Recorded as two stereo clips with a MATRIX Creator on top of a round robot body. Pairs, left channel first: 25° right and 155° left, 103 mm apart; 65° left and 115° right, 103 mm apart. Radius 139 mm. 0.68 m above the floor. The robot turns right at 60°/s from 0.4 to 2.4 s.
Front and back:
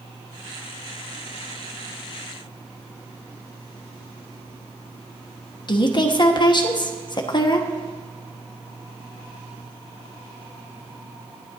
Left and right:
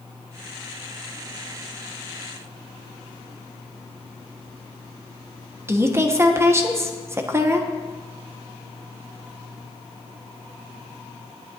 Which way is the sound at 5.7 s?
55° right.